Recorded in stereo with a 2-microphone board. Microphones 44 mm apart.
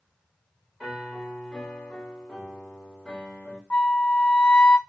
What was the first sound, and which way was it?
A piano, 10° left (ahead or behind).